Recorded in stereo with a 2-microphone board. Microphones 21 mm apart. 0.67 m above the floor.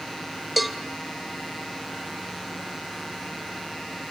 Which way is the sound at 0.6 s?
5° right (ahead or behind).